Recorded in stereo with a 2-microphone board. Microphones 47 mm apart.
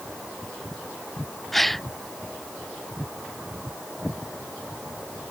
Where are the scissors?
No scissors in this recording.